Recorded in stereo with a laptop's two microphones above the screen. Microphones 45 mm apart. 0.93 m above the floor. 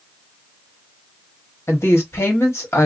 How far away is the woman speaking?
About 1.4 m.